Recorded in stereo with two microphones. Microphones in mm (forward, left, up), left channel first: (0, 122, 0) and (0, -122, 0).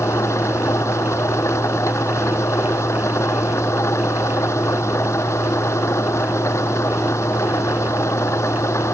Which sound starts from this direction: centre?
An engine running, at 0.0 s.